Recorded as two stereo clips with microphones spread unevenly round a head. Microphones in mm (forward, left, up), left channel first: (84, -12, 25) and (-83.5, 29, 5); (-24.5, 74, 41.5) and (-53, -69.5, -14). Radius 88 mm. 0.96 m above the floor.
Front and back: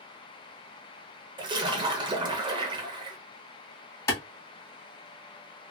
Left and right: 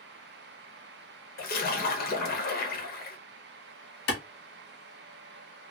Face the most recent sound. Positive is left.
turn(degrees=60)